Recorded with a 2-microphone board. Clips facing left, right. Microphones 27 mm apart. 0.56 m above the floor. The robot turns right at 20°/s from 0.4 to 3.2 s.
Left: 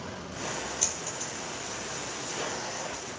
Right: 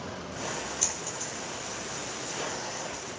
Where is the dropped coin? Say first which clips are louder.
Even; 10° left (ahead or behind), 7 m; by 1.3 s 20° left (ahead or behind), 7 m.